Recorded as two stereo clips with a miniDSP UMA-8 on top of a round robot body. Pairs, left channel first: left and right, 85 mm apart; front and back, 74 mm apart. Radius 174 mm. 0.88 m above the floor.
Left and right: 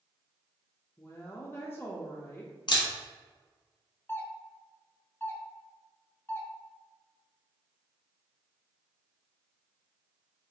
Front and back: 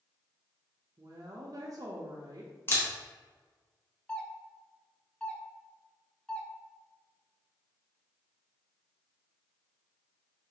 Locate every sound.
1.0 s a woman speaking: 150° left, 0.6 m
2.7 s a camera shutter: 55° left, 0.8 m
4.1 s a doorbell: 60° left, 0.8 m